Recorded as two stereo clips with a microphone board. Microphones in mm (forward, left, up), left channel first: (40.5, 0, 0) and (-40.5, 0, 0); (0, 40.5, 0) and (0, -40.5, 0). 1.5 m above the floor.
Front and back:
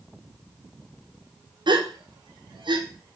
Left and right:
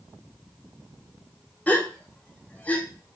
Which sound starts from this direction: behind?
A gasp, at 1.7 s.